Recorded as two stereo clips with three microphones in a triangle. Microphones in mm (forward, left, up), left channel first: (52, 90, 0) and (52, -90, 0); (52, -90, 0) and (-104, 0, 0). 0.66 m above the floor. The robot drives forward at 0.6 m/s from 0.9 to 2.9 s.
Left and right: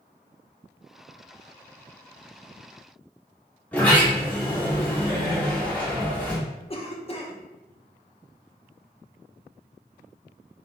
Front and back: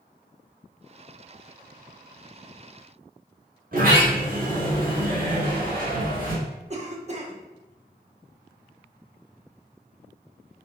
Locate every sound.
3.7 s a sliding door: 170° left, 1.4 m
6.7 s a cough: 125° left, 0.7 m